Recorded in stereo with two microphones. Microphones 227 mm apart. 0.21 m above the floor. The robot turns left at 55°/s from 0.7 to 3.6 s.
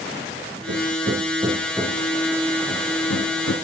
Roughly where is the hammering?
Right.